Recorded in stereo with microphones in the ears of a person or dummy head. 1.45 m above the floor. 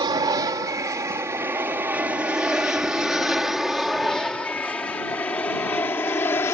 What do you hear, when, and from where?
0.0 s an aircraft: 20° right (ahead or behind); by 6.5 s 15° left (ahead or behind)